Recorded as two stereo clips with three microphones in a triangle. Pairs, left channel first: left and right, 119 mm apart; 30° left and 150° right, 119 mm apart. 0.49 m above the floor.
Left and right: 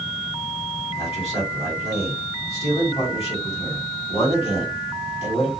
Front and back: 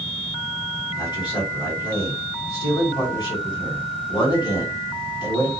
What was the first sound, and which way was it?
A man speaking, 75° left.